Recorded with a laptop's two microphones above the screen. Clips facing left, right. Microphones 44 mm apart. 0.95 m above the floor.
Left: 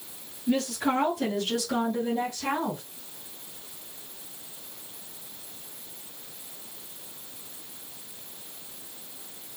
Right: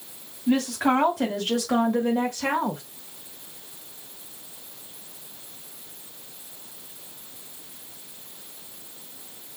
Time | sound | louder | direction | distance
0.5 | a woman speaking | right 4 dB | 65° right (ahead or behind) | 2.5 m